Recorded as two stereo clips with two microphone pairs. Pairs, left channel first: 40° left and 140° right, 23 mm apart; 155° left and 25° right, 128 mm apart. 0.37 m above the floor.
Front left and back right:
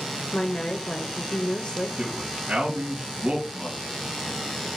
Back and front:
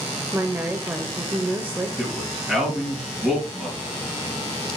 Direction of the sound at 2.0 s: 110° right.